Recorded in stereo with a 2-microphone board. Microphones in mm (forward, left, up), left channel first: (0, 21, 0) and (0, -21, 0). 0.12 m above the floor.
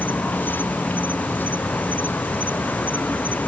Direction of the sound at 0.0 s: 45° left (ahead or behind).